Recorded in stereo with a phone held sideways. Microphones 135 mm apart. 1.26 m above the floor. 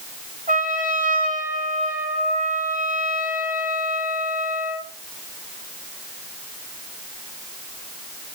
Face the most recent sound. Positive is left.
turn(degrees=-85)